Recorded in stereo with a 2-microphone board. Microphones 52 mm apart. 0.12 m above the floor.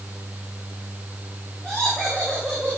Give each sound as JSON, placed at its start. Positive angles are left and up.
{"t": 1.6, "sound": "laughter", "side_deg": 5, "distance_m": 9.5}